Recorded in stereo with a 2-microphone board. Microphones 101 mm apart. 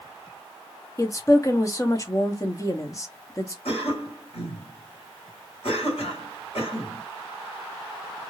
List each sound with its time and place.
1.0 s a woman speaking: 30° left (ahead or behind), 0.7 m
3.6 s a cough: 70° left (ahead or behind), 2 m